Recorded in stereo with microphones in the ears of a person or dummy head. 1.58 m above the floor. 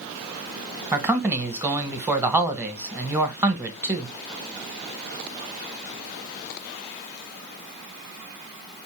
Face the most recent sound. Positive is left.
turn(degrees=-10)  # may be behind; listen again after turning